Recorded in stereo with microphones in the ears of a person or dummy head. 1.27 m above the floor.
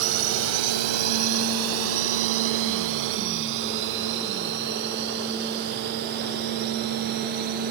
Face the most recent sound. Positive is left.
turn(degrees=-45)  # may be behind; listen again after turning